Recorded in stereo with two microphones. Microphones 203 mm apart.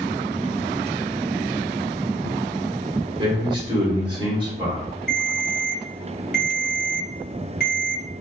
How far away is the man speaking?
About 1.6 m.